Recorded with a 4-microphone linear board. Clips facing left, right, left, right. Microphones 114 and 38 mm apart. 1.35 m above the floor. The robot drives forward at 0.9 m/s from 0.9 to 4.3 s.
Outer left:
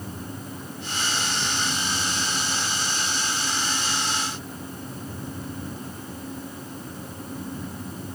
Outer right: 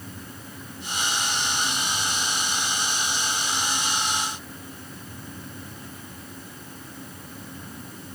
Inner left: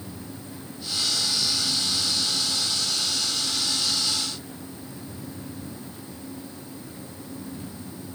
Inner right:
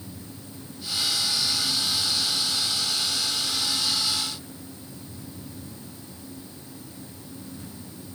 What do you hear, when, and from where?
Only background noise.